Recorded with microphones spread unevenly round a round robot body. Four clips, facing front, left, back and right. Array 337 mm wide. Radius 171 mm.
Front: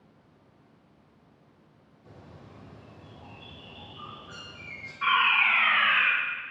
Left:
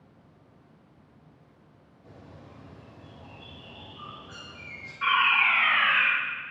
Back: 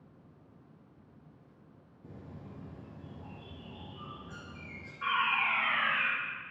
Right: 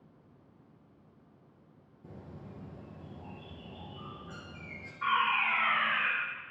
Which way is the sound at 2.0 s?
140° right.